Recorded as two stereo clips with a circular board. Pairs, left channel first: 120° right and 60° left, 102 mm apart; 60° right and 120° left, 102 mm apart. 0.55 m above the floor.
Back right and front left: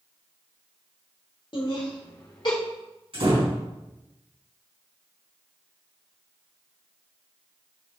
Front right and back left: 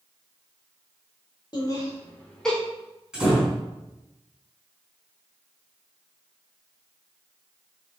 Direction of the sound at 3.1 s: 40° left.